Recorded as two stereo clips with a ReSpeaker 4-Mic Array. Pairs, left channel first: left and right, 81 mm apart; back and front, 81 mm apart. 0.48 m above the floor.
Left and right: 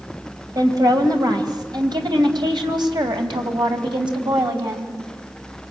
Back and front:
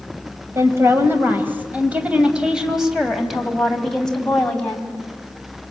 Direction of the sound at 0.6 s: 55° right.